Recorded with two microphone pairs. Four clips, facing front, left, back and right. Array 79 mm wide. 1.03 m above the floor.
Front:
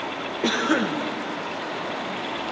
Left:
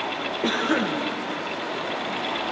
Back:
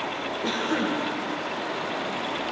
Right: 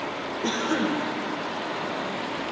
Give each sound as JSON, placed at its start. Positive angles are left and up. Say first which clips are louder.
{"t": 0.4, "sound": "a cough", "louder": "left 2 dB, front 5 dB", "azimuth_deg": 30, "distance_m": 0.9}